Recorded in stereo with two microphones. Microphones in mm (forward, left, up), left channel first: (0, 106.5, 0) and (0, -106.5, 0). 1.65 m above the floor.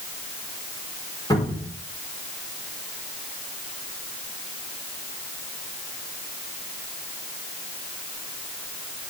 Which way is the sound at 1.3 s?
15° left (ahead or behind).